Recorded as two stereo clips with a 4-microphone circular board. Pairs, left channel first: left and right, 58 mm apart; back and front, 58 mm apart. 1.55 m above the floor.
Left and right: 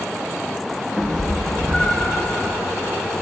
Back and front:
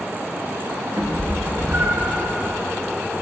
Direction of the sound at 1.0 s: 10° right.